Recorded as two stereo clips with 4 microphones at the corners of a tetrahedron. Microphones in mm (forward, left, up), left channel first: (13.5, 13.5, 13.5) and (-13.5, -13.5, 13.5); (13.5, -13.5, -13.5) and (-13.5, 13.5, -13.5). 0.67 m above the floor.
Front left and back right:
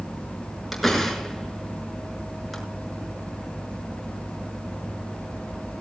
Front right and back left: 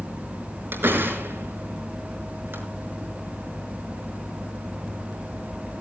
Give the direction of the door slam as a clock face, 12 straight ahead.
8 o'clock.